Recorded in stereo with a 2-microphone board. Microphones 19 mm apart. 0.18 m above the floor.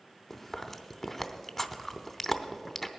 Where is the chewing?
15° left (ahead or behind), 0.7 m.